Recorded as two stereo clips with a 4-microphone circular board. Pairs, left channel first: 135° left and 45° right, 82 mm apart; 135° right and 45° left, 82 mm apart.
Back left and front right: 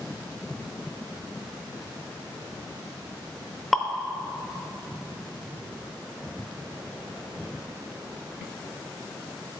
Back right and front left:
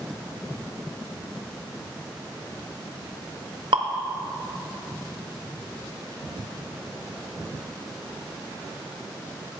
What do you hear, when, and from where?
3.7 s dripping: 45° left, 0.6 m